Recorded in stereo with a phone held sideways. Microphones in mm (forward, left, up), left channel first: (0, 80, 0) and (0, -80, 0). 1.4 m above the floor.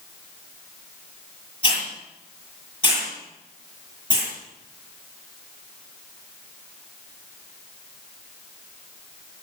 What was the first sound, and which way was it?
A hiss, 35° left (ahead or behind).